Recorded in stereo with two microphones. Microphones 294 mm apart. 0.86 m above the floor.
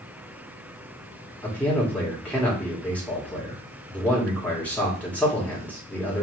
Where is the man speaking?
5° left (ahead or behind), 1.5 m.